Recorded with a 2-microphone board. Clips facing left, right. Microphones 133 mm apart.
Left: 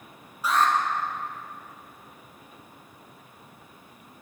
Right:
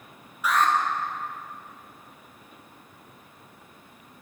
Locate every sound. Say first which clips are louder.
0.4 s an alarm: even; 30° left (ahead or behind), 1.3 m